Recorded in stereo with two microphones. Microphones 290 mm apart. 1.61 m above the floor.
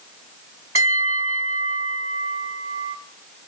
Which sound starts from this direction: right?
A bell, at 0.8 s.